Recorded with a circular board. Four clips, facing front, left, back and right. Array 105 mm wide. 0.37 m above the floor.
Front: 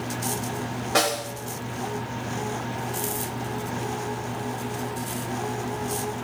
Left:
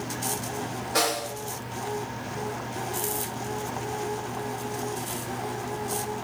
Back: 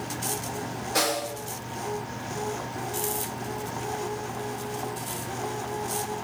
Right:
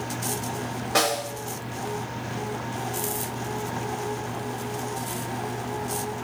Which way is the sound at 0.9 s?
35° right.